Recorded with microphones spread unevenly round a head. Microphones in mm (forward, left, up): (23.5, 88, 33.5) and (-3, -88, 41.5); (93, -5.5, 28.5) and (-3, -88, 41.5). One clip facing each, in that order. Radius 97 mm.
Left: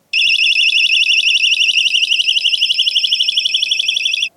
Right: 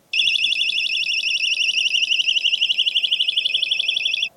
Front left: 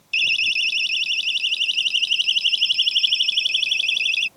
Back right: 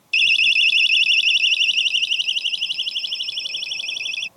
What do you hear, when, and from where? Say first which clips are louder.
0.1 s a siren: left 7 dB, back right 4 dB; 150° left; by 4.3 s 115° left